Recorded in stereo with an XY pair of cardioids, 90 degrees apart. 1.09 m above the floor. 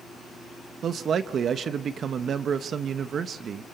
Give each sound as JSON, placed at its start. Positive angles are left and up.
{"t": 0.8, "sound": "a man speaking", "azimuth_deg": -60, "distance_m": 1.1}